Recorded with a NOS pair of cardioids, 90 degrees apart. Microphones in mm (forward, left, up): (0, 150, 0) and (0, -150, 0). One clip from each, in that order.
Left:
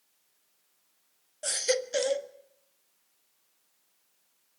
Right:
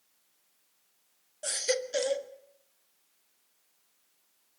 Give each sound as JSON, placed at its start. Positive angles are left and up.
{"t": 1.4, "sound": "a baby crying", "azimuth_deg": 15, "distance_m": 1.6}